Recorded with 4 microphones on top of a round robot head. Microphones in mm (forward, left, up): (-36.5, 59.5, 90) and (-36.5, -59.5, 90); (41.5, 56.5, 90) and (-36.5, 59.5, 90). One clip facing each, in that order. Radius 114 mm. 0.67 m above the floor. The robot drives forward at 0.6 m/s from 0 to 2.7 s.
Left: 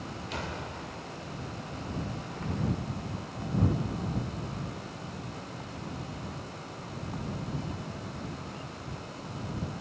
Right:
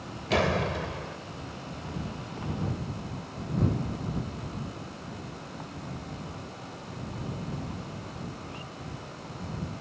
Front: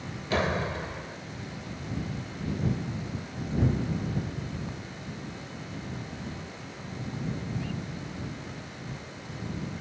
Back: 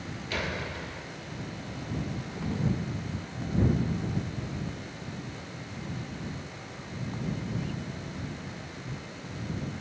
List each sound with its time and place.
0.3 s a door slam: 65° right; by 1.2 s 75° right